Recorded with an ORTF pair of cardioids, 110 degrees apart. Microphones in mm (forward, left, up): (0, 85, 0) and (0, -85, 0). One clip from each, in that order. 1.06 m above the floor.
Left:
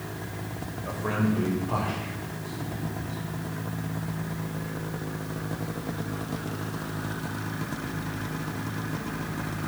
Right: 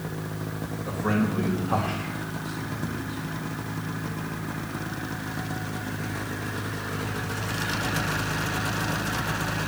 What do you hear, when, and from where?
0.8 s a man speaking: 25° left, 4 m; by 3.4 s 15° right, 3.5 m